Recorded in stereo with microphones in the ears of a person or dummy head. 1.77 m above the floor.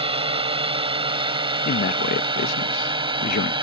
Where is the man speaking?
50° left (ahead or behind).